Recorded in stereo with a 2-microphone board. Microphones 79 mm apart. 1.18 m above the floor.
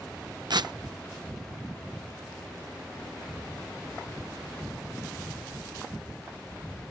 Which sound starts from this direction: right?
Tearing paper, at 0.5 s.